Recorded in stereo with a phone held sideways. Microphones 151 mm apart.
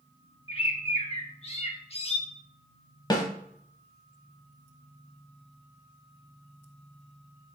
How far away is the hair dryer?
No hair dryer in this recording.